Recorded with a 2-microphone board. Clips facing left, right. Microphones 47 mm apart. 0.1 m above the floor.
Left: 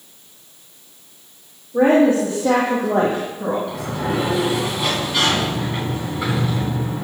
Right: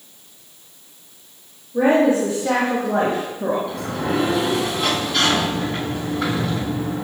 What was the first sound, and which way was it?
A woman speaking, 50° left (ahead or behind).